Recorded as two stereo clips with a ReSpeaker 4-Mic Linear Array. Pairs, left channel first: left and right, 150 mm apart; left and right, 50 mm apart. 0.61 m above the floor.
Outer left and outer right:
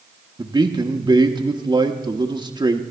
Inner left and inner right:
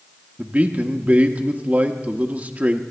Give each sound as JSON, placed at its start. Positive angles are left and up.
{"t": 0.4, "sound": "a man speaking", "side_deg": -30, "distance_m": 0.8}